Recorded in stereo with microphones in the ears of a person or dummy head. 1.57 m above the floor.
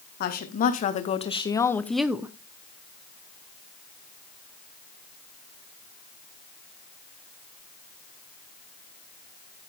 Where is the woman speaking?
50° left (ahead or behind), 1.4 m; by 2.3 s 20° right (ahead or behind), 0.7 m.